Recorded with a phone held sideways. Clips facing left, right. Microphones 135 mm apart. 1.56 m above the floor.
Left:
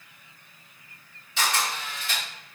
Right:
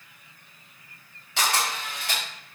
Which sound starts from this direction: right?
A camera shutter, at 1.4 s.